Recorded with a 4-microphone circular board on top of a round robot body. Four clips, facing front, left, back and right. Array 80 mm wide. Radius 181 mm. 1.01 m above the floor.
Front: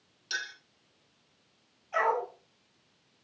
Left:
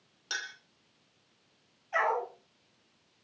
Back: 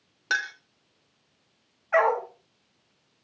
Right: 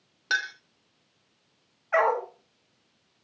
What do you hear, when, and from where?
0.3 s a clink: 155° right, 0.9 m
1.9 s a dog barking: 135° right, 1.1 m